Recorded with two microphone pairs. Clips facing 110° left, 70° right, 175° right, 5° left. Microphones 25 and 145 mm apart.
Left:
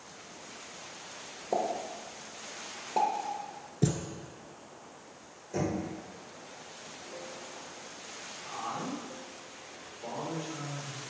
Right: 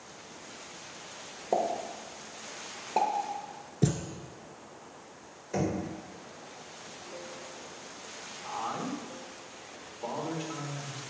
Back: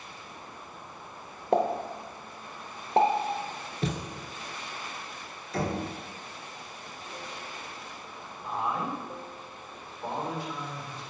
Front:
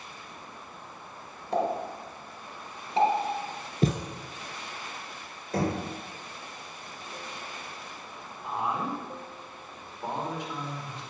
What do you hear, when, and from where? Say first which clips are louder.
1.5 s a pop: right 2 dB, back 2 dB; 145° right, 1.1 m
3.8 s a thud: right 1 dB, front 5 dB; 5° left, 1.3 m
5.5 s knocking: right 2 dB, front 2 dB; 30° right, 3 m
8.4 s a man speaking: right 2 dB, even; 65° right, 2.5 m